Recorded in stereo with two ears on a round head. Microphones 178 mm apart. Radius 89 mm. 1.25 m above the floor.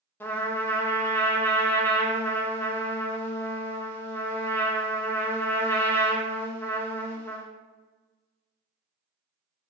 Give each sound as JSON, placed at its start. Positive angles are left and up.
{"t": 0.2, "sound": "a trumpet", "side_deg": 10, "distance_m": 0.5}